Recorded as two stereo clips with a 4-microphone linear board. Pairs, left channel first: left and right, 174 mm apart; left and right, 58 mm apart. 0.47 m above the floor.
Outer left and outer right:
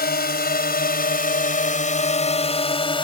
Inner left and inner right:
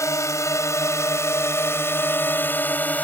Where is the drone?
65° left (ahead or behind); by 3.0 s 30° left (ahead or behind).